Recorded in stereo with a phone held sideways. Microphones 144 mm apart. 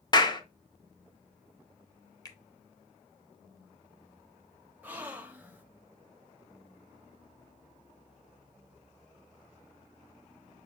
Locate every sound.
0.1 s a clap: 30° left (ahead or behind), 0.6 m
2.2 s a finger snap: 25° left (ahead or behind), 0.8 m
4.8 s a gasp: 10° right (ahead or behind), 0.6 m